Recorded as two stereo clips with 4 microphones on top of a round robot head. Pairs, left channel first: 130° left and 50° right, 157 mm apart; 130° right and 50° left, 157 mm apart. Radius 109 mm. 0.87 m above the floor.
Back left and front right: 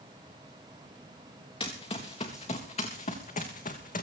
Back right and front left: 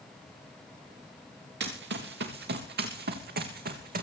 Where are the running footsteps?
70° left, 3.5 m; by 4.0 s 85° left, 3 m.